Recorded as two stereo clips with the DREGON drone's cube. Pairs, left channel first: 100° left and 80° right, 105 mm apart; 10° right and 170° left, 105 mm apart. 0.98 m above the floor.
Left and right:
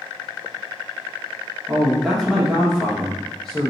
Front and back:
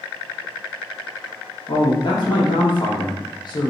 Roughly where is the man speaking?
Ahead.